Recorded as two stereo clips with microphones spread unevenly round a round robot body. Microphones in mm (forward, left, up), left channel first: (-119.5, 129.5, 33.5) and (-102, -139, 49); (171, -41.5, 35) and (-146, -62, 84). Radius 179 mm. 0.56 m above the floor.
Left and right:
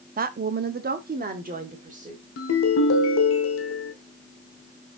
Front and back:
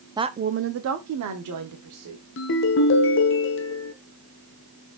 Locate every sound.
0.2 s a woman speaking: 95° right, 0.6 m; by 2.2 s 150° right, 1.8 m
2.4 s a ringtone: 50° left, 0.9 m